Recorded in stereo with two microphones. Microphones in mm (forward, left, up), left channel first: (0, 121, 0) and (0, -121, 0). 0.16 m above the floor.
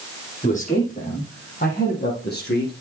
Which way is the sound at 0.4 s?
30° left (ahead or behind).